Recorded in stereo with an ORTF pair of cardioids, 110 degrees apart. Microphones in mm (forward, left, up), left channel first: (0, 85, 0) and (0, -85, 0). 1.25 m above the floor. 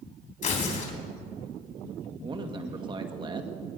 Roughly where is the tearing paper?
Ahead left.